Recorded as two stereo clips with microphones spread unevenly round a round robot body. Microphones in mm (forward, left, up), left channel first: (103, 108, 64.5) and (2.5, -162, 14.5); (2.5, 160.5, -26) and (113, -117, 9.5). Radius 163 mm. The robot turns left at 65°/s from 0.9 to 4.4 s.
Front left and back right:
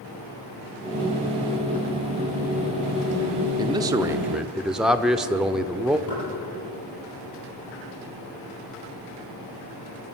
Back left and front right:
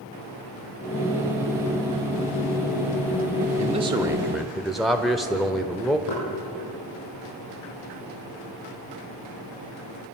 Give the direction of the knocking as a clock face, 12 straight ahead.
9 o'clock.